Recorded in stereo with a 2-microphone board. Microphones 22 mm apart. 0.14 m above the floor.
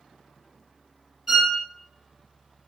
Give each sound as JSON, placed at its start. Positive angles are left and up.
{"t": 1.3, "sound": "a violin", "side_deg": -15, "distance_m": 0.7}